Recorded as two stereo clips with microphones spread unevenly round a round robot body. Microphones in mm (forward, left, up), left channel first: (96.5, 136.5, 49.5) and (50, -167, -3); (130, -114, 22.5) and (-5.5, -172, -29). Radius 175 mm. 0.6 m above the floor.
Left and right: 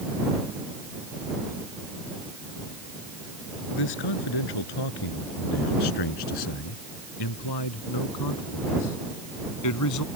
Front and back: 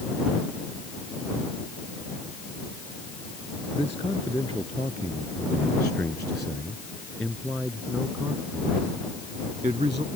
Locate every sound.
3.7 s a man speaking: 100° left; by 10.1 s 130° left